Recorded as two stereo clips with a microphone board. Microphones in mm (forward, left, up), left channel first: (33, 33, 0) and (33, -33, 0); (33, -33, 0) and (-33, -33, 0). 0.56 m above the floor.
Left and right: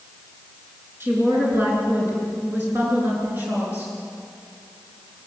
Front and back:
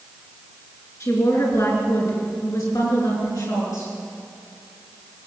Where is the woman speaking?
35° right, 7.5 m; by 3.9 s 25° right, 9 m.